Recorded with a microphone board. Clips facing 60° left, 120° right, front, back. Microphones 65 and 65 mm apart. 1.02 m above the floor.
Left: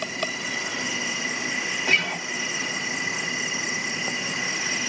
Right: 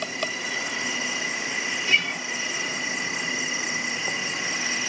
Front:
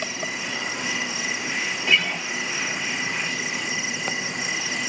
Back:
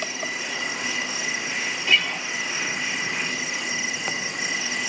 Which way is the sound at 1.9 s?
80° left.